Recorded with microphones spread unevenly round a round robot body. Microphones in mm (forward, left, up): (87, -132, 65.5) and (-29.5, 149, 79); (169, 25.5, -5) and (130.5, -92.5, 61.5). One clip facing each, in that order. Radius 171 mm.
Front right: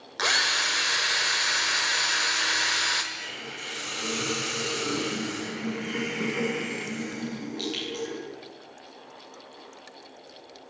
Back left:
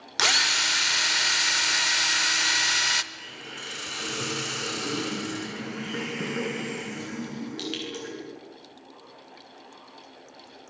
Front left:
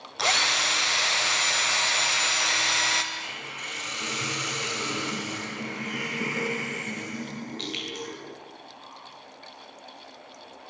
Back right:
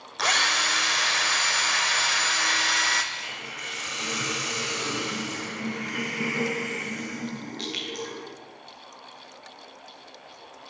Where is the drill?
160° left, 1.1 m.